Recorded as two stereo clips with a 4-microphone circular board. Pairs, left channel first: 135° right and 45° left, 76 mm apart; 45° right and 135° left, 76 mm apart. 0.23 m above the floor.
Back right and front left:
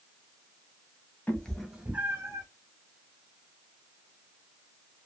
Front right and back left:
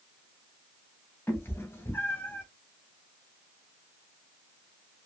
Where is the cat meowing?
85° right, 0.7 m; by 2.5 s 15° left, 0.9 m.